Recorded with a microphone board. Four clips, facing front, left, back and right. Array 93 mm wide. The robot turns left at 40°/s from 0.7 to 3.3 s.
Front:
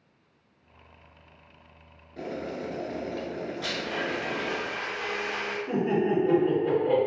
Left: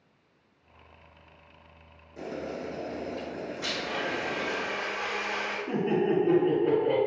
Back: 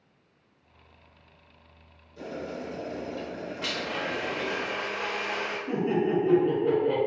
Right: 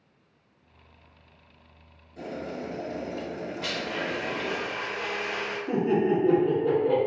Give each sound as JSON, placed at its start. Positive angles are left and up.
{"t": 2.2, "sound": "boiling", "azimuth_deg": 20, "distance_m": 0.8}
{"t": 3.6, "sound": "a blender", "azimuth_deg": -145, "distance_m": 0.9}
{"t": 5.7, "sound": "laughter", "azimuth_deg": 85, "distance_m": 1.3}